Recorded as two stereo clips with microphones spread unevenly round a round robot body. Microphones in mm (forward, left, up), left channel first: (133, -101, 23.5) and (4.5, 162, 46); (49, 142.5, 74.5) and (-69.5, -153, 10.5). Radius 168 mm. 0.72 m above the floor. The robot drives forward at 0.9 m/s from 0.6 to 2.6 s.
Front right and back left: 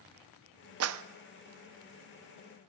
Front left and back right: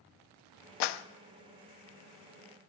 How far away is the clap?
About 0.7 m.